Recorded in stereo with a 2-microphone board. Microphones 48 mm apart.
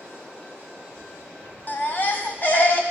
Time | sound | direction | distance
1.7 | a baby crying | 40° left (ahead or behind) | 0.9 m